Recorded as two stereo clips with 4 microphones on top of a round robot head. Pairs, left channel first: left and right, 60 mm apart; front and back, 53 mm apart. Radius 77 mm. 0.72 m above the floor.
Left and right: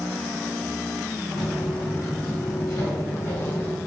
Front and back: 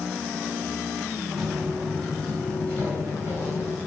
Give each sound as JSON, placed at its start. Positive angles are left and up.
{"t": 1.4, "sound": "footsteps", "azimuth_deg": 90, "distance_m": 2.0}